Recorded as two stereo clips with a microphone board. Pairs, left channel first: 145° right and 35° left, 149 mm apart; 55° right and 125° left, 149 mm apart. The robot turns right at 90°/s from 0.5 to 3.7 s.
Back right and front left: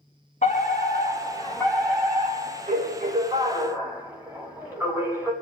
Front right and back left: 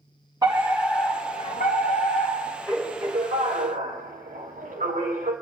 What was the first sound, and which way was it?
A fire alarm, 175° right.